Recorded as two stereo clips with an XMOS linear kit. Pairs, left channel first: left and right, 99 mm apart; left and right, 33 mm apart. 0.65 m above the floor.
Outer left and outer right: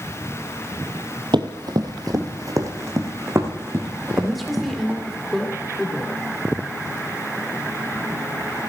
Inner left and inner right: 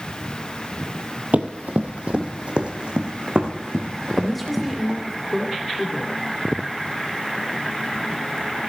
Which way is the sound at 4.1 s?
Centre (ahead or behind).